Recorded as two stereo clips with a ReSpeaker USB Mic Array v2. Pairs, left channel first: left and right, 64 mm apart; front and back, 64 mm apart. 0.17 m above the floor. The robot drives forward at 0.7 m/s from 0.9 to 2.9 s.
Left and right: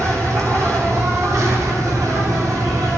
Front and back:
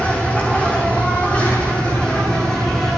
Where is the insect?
65° right, 4.5 m; by 3.0 s 85° right, 4 m.